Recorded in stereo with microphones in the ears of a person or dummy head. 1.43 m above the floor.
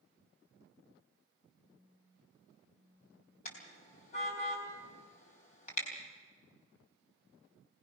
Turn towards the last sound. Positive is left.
turn(degrees=45)  # may be behind; listen again after turning